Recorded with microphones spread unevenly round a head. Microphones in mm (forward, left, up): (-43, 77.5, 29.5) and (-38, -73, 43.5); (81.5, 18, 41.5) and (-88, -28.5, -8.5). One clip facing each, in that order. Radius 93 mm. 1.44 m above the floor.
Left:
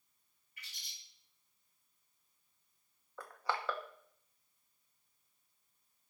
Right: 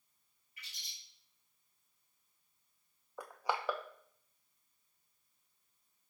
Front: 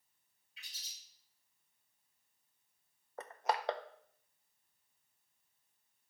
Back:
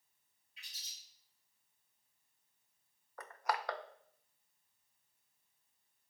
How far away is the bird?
About 3 m.